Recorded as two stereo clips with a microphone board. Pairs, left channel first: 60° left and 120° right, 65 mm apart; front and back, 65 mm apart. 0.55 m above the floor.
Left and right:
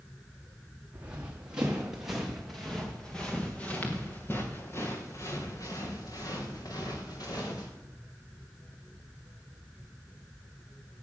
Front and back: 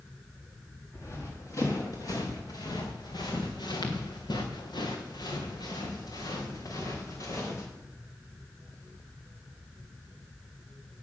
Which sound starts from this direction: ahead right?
Running footsteps, at 0.9 s.